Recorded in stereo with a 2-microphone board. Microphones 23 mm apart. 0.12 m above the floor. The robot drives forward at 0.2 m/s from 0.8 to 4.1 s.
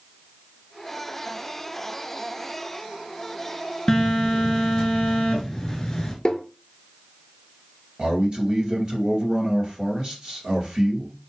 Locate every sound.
3.9 s a phone buzzing: 25° left (ahead or behind), 1.7 m
6.2 s tapping: 30° left (ahead or behind), 0.7 m
8.0 s a man speaking: 45° right (ahead or behind), 2 m